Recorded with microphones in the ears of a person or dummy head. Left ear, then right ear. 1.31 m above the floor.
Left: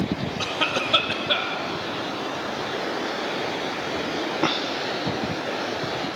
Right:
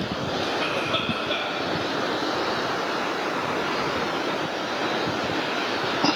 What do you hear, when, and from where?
0.4 s a cough: 40° left (ahead or behind), 1.2 m